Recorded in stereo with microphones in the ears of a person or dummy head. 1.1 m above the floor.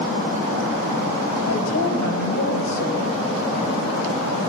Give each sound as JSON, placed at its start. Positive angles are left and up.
{"t": 1.5, "sound": "a woman speaking", "side_deg": 80, "distance_m": 5.0}